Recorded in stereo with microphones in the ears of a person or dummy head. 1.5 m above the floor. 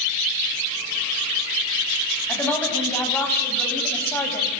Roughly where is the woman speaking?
Centre.